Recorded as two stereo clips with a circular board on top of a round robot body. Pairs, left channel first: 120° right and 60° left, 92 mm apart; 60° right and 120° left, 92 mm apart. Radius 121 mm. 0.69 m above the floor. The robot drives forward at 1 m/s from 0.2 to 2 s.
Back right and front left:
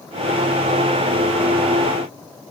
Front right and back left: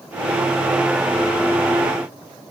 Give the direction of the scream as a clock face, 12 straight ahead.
I don't hear a scream.